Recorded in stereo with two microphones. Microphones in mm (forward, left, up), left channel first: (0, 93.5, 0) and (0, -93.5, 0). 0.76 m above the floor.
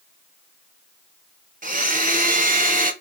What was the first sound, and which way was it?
A blender, 45° right (ahead or behind).